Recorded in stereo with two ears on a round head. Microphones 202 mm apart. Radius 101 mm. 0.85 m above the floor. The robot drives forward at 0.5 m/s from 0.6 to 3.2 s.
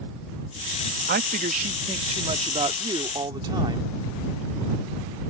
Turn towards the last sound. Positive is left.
turn(degrees=-20)  # may be behind; listen again after turning